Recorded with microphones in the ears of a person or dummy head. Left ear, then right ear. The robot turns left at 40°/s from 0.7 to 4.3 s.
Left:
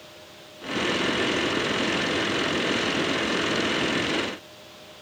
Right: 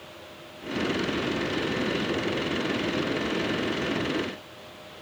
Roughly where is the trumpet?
I don't hear a trumpet.